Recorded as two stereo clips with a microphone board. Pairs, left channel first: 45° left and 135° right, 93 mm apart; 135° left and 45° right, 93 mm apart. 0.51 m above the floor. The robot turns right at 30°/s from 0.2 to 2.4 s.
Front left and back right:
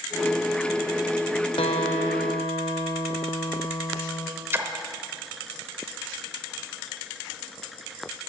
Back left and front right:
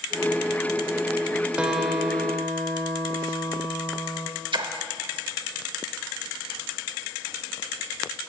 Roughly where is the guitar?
Ahead left.